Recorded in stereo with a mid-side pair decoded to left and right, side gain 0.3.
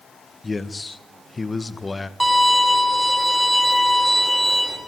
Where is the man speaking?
25° left, 1.7 m.